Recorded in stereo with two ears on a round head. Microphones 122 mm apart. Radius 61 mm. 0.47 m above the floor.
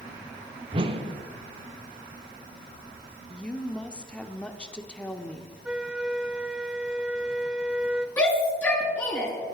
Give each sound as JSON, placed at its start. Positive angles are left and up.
{"t": 0.7, "sound": "a whoosh", "side_deg": -40, "distance_m": 1.0}
{"t": 3.3, "sound": "a woman speaking", "side_deg": 10, "distance_m": 0.9}
{"t": 5.7, "sound": "a flute", "side_deg": -5, "distance_m": 0.6}
{"t": 8.2, "sound": "a shout", "side_deg": 15, "distance_m": 6.0}